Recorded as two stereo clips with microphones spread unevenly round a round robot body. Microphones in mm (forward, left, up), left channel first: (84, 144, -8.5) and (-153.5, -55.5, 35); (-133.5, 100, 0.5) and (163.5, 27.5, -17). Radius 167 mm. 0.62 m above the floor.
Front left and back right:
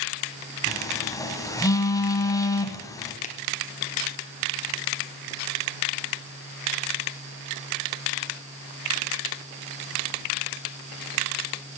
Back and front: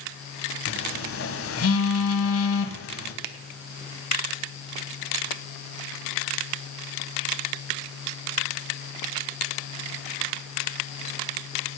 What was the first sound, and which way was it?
A phone buzzing, 120° left.